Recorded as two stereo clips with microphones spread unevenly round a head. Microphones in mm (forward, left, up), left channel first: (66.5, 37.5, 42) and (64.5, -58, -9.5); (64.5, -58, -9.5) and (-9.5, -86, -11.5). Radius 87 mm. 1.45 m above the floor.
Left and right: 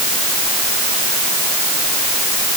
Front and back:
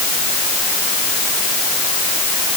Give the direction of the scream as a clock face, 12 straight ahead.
No scream in this recording.